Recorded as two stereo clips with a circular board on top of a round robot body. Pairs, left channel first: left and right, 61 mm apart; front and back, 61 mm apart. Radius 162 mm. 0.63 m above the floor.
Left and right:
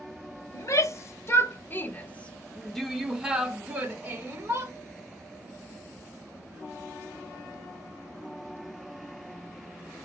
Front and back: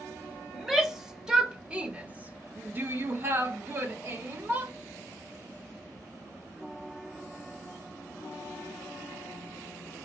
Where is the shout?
95° left, 1.5 m; by 4.7 s 135° right, 1.6 m.